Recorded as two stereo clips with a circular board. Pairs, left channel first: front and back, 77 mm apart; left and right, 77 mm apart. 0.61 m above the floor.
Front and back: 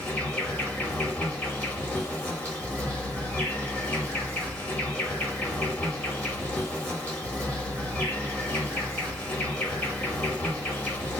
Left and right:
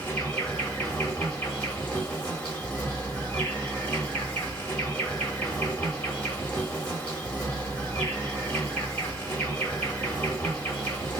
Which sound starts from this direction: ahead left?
An insect, at 0.0 s.